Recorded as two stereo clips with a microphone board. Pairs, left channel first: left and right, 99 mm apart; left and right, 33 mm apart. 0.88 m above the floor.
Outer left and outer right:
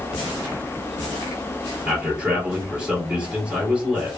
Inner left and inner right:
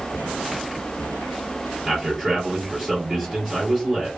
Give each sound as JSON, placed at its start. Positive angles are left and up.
{"t": 1.9, "sound": "a man speaking", "side_deg": -10, "distance_m": 1.8}